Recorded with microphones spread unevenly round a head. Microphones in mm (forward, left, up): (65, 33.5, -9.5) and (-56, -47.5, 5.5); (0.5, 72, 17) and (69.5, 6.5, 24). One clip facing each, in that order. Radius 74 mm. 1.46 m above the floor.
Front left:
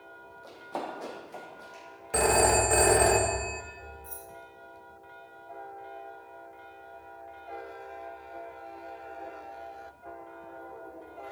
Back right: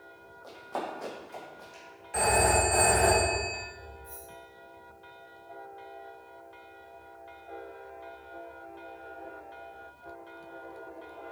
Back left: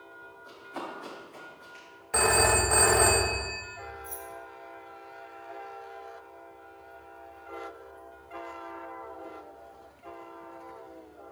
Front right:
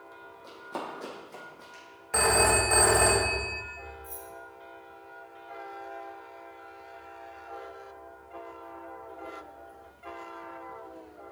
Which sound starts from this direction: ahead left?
A phone ringing, at 2.1 s.